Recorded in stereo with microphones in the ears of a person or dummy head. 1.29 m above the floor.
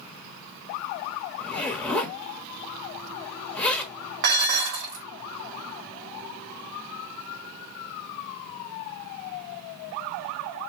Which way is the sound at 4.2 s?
55° right (ahead or behind).